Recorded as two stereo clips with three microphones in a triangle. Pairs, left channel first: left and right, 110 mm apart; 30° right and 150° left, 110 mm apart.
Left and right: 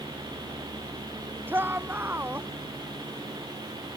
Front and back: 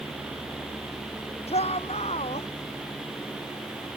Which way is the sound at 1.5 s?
20° right.